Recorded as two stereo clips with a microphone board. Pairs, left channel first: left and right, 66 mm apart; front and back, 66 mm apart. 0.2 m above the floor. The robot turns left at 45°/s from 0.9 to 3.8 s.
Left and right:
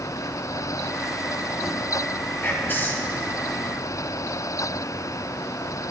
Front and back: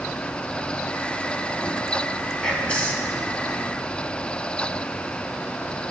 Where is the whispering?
75° left, 1.4 m; by 3.1 s 45° left, 1.4 m.